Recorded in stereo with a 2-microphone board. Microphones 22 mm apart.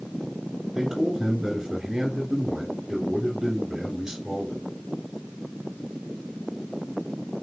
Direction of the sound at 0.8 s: 10° right (ahead or behind).